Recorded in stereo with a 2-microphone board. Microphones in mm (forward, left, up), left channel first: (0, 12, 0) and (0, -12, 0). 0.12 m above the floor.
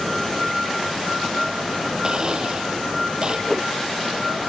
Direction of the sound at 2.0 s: 35° right (ahead or behind).